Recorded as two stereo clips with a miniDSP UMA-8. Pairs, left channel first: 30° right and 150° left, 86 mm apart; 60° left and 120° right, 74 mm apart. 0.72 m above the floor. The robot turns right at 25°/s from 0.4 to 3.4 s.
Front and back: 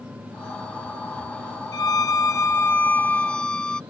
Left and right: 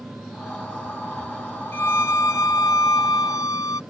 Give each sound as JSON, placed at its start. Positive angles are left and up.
{"t": 1.7, "sound": "a violin", "azimuth_deg": 5}